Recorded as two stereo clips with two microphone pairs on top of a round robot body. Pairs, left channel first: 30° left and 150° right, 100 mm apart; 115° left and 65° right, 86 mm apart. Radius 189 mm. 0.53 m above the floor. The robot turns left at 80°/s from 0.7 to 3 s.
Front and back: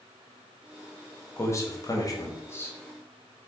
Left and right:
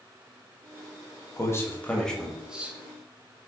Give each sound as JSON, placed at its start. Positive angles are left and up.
{"t": 1.4, "sound": "a man speaking", "azimuth_deg": 80, "distance_m": 1.2}